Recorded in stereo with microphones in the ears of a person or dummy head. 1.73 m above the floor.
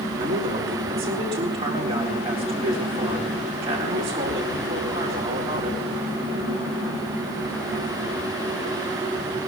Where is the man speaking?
25° right (ahead or behind), 4 m.